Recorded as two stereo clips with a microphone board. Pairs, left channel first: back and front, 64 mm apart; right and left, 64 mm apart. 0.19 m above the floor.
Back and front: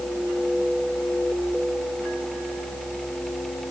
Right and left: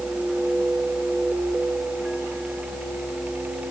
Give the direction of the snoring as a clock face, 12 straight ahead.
No snoring in this recording.